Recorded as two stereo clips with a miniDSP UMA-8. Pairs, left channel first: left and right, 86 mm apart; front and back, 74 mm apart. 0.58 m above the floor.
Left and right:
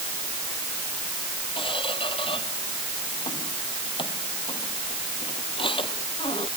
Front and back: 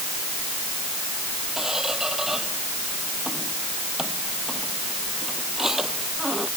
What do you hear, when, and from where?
1.6 s a squeak: 95° left